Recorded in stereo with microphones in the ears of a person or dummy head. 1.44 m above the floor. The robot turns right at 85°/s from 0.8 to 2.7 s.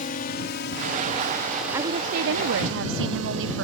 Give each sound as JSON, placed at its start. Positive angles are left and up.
{"t": 0.0, "sound": "a drone", "side_deg": 40}
{"t": 1.7, "sound": "a woman speaking", "azimuth_deg": -160}